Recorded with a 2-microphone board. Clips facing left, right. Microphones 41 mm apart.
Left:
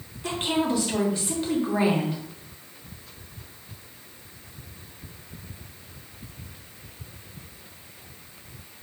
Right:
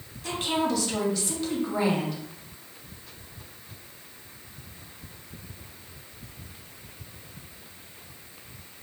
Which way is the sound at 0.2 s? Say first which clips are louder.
Left 1 dB; 25° left (ahead or behind).